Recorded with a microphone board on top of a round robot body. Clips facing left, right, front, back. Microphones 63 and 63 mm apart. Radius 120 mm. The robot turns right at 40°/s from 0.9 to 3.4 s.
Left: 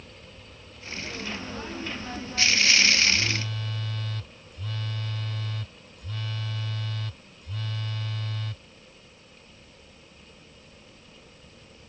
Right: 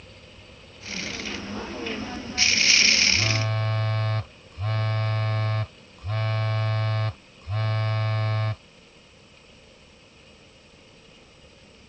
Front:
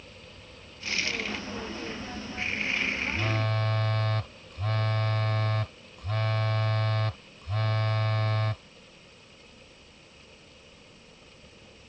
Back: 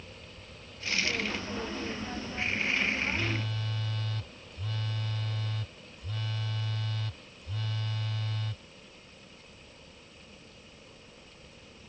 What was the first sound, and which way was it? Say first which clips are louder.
A phone buzzing: right 3 dB, front 4 dB; 55° right.